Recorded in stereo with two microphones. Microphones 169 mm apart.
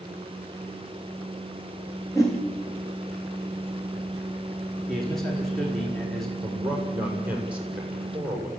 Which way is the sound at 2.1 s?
20° left (ahead or behind).